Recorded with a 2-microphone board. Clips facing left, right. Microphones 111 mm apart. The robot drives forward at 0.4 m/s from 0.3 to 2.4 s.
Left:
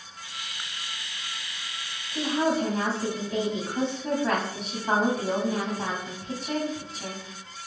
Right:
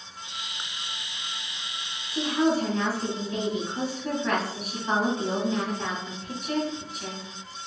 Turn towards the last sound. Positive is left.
turn(degrees=35)  # may be behind; listen again after turning